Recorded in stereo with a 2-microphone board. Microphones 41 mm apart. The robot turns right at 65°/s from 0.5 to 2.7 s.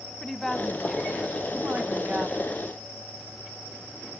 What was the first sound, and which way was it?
A woman speaking, 165° left.